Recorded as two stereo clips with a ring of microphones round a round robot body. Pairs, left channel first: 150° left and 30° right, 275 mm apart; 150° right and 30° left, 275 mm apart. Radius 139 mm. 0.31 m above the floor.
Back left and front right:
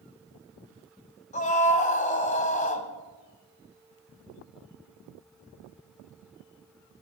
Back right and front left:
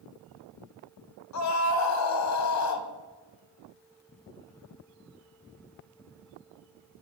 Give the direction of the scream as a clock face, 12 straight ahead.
5 o'clock.